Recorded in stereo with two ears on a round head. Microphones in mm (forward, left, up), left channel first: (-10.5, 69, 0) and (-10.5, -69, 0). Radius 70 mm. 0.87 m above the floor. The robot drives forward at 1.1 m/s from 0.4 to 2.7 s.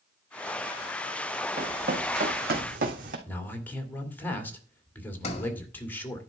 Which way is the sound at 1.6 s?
55° right (ahead or behind).